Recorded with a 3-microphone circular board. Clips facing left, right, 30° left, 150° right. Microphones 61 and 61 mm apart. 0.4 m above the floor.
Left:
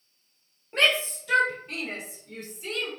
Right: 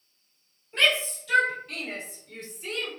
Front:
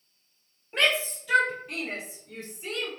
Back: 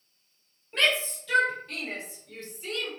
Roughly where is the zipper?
No zipper in this recording.